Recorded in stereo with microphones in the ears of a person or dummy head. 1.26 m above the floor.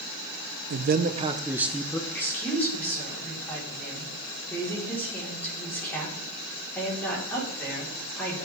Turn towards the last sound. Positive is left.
turn(degrees=10)  # may be behind; listen again after turning